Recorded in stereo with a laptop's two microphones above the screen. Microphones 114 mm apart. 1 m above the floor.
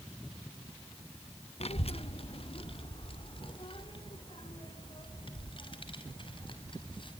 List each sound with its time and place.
1.6 s a child speaking: 60° left (ahead or behind), 0.9 m; by 7.1 s 45° left (ahead or behind), 6 m